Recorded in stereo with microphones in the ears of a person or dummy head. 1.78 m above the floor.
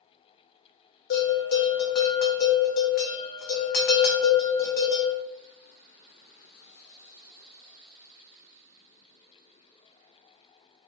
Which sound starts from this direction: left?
A bell, at 1.1 s.